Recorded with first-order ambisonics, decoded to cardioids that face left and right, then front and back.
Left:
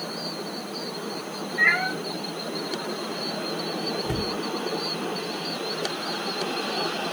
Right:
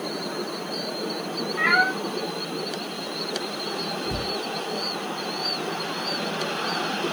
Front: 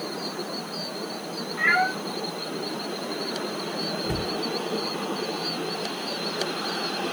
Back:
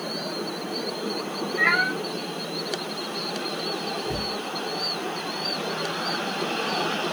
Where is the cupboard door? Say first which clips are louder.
Even, even; 55° left, 0.8 m.